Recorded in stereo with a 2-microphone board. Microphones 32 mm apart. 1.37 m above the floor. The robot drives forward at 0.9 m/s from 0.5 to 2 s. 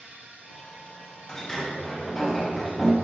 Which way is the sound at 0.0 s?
55° right (ahead or behind).